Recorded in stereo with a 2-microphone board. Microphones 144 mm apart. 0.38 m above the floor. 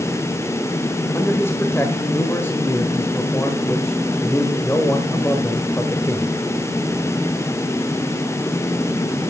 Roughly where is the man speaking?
Centre.